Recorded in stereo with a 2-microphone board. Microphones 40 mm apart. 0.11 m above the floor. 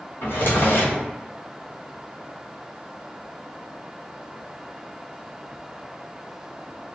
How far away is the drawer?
About 1.2 m.